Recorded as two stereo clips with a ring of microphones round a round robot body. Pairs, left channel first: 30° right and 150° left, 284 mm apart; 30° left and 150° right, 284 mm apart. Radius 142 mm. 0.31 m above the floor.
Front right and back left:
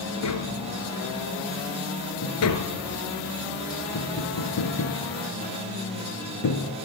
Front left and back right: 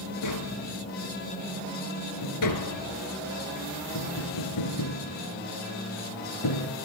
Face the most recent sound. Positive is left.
turn(degrees=5)